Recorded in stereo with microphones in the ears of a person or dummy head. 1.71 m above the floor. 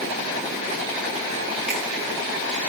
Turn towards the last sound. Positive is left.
turn(degrees=-5)  # may be behind; listen again after turning